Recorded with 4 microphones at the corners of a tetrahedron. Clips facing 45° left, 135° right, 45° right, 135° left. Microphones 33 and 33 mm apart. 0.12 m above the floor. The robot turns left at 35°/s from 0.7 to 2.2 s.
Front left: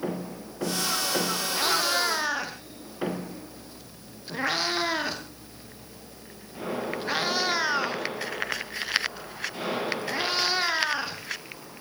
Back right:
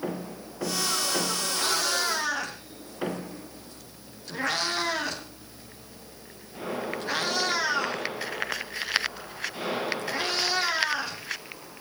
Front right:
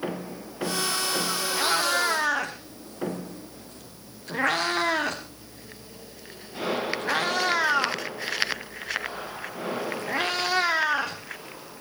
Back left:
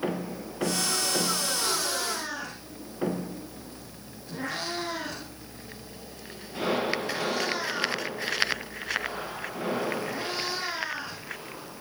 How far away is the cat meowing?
About 3.5 m.